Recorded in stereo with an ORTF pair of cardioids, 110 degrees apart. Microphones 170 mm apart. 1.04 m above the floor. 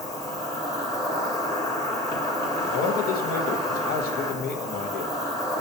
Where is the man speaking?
65° left, 0.5 m.